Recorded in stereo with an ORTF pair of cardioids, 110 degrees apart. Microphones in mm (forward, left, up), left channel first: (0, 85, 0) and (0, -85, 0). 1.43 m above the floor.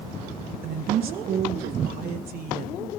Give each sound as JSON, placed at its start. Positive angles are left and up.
{"t": 0.6, "sound": "a woman speaking", "azimuth_deg": -65, "distance_m": 1.7}